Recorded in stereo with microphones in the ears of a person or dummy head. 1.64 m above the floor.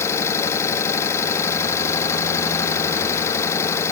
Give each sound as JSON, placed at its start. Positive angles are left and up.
{"t": 0.0, "sound": "an engine running", "side_deg": 15}